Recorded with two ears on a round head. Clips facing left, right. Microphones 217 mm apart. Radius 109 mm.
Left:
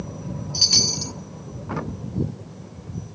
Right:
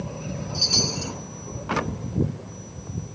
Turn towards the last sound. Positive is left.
turn(degrees=30)  # may be behind; listen again after turning